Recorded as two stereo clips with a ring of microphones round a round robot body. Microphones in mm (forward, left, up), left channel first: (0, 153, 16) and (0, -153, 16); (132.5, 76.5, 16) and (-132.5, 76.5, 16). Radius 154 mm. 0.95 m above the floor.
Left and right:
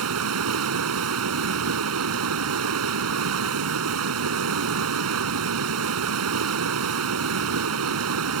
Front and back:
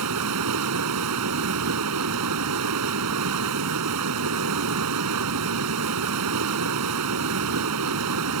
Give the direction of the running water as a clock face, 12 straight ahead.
4 o'clock.